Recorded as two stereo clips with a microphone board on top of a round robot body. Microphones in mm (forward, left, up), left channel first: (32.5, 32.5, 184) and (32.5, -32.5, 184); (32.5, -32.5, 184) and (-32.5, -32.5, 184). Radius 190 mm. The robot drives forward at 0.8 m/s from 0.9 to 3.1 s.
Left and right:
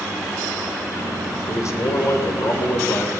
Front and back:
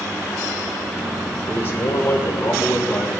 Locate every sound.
1.5 s a man speaking: 50° left, 3 m; by 3.1 s 75° left, 2.5 m